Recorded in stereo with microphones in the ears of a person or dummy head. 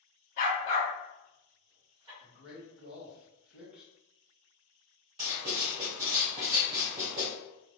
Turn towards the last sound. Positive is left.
turn(degrees=-20)  # may be behind; listen again after turning